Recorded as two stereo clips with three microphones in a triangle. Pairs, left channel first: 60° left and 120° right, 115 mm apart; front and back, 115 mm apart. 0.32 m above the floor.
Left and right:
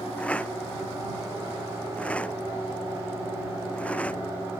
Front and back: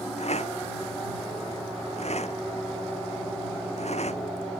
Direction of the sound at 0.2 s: 20° right.